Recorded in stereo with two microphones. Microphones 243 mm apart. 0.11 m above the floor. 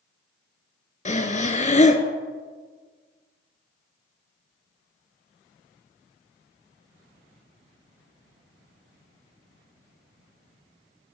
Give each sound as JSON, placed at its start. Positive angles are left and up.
{"t": 1.1, "sound": "breathing", "side_deg": 30, "distance_m": 0.7}